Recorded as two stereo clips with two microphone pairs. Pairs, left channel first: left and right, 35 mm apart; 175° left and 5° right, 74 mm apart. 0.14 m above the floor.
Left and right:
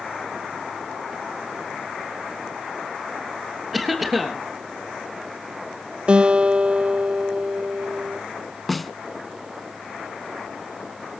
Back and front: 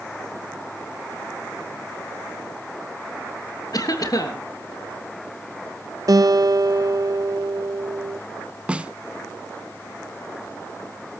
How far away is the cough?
About 3 m.